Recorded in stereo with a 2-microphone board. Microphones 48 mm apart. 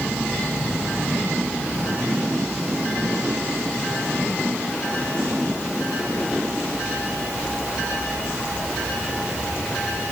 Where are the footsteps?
I don't hear footsteps.